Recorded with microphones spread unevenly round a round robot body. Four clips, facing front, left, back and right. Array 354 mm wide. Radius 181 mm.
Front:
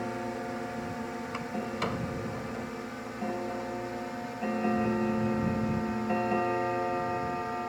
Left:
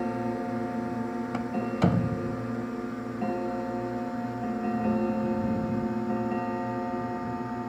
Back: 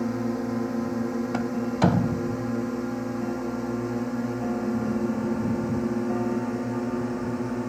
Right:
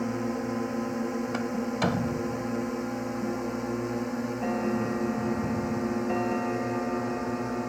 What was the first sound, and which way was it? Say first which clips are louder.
A drone: even, back 7 dB; straight behind.